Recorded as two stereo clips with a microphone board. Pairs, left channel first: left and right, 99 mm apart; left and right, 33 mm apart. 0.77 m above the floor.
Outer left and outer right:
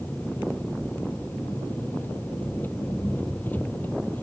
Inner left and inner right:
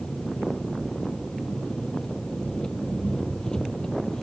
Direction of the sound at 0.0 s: 20° left (ahead or behind).